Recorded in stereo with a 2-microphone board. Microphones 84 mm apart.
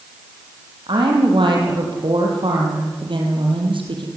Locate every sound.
0.9 s a woman speaking: 80° right, 8 m